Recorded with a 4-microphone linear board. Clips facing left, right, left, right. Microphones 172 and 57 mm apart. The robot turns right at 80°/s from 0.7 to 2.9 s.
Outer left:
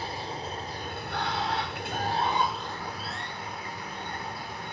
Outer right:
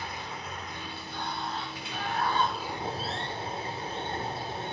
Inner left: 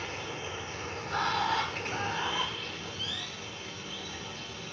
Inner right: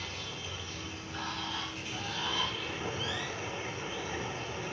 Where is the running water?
35° left, 1.6 m; by 4.7 s 150° right, 1.6 m.